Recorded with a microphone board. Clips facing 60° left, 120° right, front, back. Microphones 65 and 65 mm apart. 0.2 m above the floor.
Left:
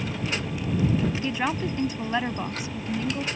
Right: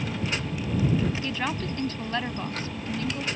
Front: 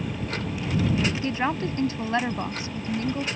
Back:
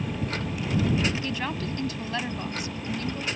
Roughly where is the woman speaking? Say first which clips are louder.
Left 3 dB, front 5 dB; ahead.